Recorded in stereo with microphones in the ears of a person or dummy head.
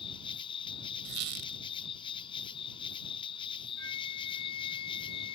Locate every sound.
0.0 s an insect: 35° left (ahead or behind)
1.1 s a squeak: 45° right (ahead or behind)
3.8 s a flute: 80° left